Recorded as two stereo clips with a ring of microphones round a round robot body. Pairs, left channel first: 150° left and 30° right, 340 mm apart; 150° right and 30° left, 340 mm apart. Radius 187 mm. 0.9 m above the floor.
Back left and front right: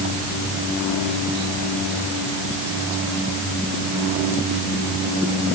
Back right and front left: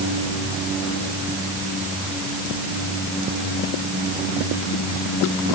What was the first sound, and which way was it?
Only background noise.